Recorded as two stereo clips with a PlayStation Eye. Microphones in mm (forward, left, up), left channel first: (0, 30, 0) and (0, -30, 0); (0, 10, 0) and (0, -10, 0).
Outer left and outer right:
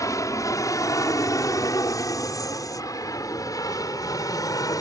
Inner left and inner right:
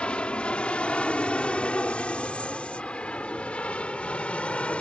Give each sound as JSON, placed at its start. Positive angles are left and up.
{"t": 0.0, "sound": "an aircraft", "side_deg": 60}